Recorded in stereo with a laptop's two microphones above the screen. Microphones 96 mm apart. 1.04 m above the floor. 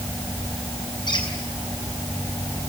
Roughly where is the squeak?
Left.